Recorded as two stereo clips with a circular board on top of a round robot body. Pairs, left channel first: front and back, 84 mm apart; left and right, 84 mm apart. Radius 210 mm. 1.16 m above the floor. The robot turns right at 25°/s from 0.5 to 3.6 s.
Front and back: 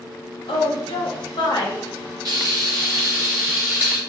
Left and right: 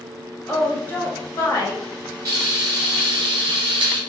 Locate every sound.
0.5 s a woman speaking: 10° left, 1.0 m; by 1.8 s 45° left, 1.0 m
2.2 s frying: 135° right, 0.7 m; by 4.0 s 100° right, 0.7 m